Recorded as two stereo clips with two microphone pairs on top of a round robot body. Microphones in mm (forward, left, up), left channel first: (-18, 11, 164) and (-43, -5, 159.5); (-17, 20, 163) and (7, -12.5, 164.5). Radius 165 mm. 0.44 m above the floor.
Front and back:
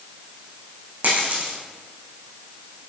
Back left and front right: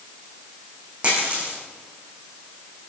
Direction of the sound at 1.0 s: 120° right.